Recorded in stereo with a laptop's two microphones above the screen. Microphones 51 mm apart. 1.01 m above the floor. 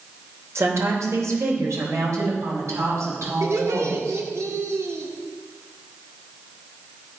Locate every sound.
0.6 s a woman speaking: 65° right (ahead or behind), 3 m
3.4 s laughter: 80° right, 2.5 m